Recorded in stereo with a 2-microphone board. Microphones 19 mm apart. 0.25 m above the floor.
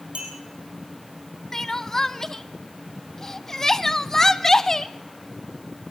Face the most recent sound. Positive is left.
turn(degrees=20)  # may be behind; listen again after turning